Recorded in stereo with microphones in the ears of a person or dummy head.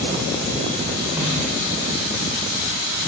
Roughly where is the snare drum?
Centre.